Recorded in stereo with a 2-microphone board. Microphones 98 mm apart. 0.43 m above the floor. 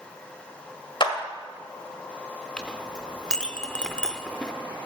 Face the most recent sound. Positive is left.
turn(degrees=10)  # may be behind; listen again after turning